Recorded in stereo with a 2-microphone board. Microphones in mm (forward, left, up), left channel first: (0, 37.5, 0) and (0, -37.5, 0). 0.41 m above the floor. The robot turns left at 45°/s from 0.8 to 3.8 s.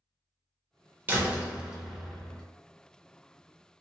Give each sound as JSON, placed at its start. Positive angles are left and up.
{"t": 1.1, "sound": "a door slam", "azimuth_deg": -140, "distance_m": 0.7}